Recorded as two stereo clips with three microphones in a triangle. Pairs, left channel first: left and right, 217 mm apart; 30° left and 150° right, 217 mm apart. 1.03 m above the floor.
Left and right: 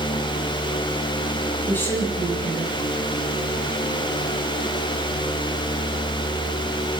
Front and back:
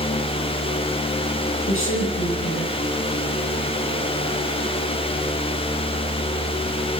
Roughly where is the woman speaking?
Ahead.